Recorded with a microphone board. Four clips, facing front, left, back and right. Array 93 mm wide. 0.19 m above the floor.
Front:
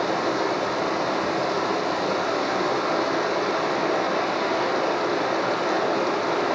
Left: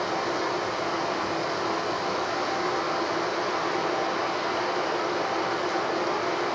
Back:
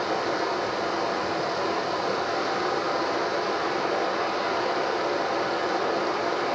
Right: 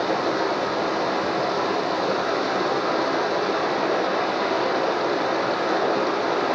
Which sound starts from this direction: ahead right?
Running water, at 0.0 s.